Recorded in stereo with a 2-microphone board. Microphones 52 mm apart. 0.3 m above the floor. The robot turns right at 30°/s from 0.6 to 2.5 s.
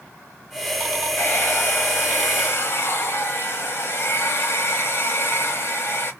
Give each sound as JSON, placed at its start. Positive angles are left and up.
{"t": 1.2, "sound": "a hair dryer", "azimuth_deg": 60, "distance_m": 1.0}